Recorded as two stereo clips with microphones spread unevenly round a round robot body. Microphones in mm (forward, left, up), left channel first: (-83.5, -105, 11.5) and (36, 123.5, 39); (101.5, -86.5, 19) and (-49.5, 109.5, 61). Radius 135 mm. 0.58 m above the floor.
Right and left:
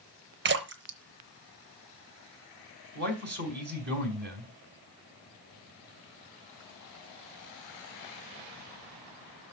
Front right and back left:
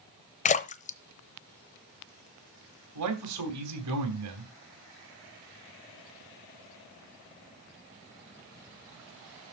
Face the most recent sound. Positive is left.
turn(degrees=115)